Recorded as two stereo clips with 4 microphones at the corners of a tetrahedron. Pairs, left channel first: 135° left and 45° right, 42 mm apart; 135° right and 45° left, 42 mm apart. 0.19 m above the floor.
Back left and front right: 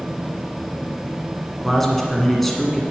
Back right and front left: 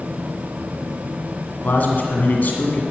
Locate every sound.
1.6 s a man speaking: 145° right, 1.7 m